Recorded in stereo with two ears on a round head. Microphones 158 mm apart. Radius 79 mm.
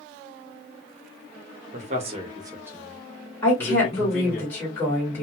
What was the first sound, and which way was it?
A man speaking, 45° right (ahead or behind).